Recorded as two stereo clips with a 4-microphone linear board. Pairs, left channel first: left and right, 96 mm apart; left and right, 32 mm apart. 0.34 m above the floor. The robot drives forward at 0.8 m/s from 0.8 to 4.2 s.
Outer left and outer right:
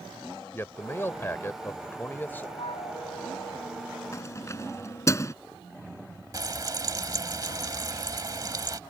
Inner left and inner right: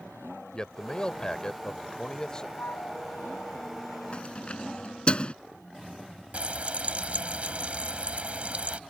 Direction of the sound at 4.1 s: 35° left (ahead or behind).